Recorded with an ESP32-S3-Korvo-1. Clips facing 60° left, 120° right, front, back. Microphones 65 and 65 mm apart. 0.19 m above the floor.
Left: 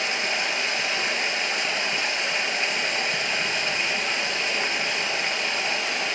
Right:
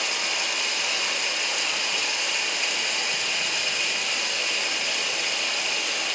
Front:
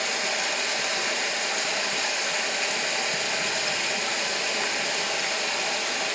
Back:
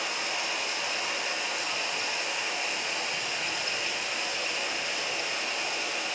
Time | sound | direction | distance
0.0 | running water | 10° left | 2.5 m